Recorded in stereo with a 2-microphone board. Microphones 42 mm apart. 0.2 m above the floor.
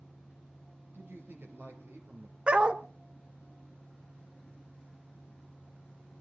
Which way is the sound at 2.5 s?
25° right (ahead or behind).